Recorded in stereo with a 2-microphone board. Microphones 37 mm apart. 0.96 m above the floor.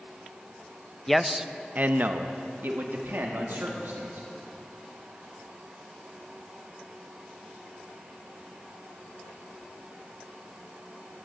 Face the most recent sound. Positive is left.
turn(degrees=-80)